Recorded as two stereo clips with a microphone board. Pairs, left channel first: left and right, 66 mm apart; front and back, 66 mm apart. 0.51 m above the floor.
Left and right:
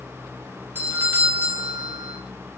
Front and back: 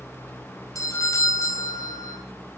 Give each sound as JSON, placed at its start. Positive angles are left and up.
{"t": 0.8, "sound": "a doorbell", "azimuth_deg": -35, "distance_m": 4.5}